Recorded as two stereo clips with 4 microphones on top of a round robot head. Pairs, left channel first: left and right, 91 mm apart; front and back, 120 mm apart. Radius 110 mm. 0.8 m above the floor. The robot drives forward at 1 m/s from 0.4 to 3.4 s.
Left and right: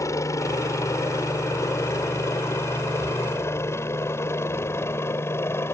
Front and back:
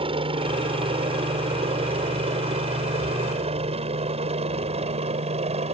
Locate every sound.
0.0 s a helicopter: 140° left; by 5.8 s 150° left